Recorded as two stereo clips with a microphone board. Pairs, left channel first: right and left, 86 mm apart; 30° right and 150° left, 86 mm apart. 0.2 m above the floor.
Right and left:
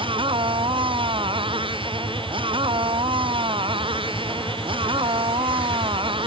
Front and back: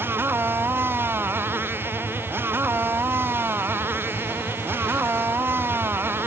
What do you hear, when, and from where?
0.0 s a motorcycle: 85° left